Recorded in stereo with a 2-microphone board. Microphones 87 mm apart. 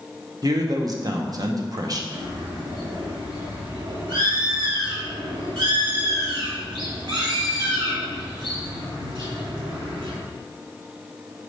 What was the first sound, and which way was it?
A man speaking, 45° right (ahead or behind).